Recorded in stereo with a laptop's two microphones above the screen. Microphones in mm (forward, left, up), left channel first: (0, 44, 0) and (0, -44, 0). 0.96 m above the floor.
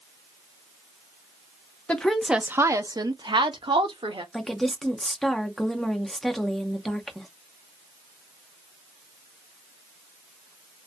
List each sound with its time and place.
1.9 s a woman speaking: 15° left (ahead or behind), 0.5 m; by 4.2 s 75° right (ahead or behind), 1.1 m
4.3 s a woman speaking: centre (ahead or behind), 0.6 m